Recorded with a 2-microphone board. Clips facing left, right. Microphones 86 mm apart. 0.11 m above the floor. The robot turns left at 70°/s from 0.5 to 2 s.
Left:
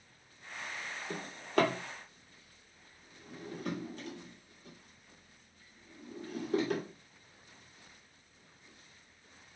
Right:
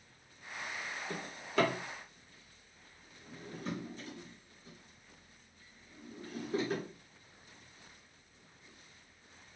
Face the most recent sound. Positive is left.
turn(degrees=65)  # may be behind; listen again after turning